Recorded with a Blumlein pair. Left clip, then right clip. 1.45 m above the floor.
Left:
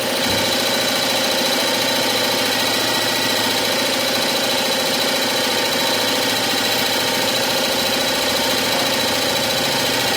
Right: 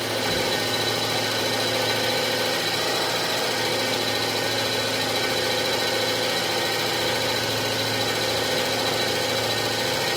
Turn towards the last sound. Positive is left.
turn(degrees=40)